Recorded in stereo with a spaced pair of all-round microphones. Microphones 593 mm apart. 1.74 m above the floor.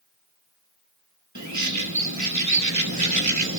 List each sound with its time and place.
1.4 s a bird: 30° right (ahead or behind), 1.3 m